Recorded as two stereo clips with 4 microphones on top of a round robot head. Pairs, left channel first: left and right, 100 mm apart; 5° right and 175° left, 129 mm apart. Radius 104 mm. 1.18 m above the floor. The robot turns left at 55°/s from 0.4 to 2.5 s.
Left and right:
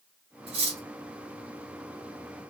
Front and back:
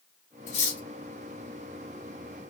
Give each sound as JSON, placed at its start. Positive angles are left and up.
{"t": 0.5, "sound": "cutlery clinking", "azimuth_deg": -45, "distance_m": 1.4}